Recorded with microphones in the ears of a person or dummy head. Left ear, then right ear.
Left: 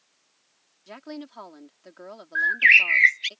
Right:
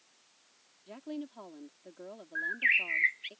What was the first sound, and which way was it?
A woman speaking, 60° left (ahead or behind).